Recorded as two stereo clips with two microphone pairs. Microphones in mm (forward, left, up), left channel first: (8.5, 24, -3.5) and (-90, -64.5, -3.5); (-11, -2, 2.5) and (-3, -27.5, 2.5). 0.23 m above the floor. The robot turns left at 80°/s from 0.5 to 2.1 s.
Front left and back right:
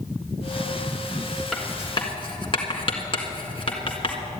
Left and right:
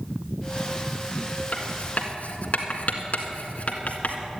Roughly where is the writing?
Behind left.